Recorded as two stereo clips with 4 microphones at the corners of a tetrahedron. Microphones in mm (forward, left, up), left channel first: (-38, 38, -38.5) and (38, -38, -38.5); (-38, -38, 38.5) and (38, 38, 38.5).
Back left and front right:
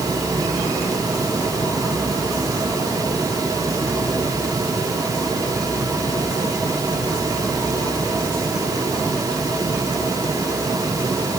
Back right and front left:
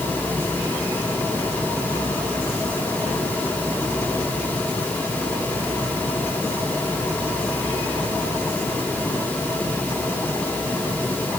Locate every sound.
Only background noise.